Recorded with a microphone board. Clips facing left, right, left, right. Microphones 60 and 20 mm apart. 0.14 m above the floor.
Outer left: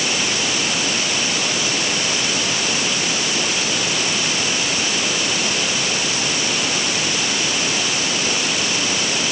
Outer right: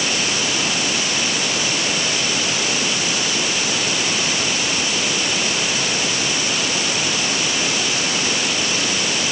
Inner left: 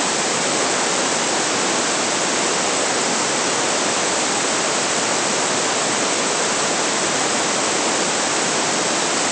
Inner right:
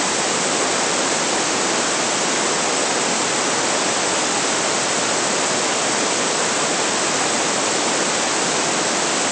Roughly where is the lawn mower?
No lawn mower in this recording.